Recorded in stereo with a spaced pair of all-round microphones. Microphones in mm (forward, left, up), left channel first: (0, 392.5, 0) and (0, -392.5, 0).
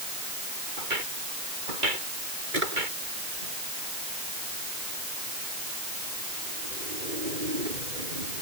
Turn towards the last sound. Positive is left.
turn(degrees=-90)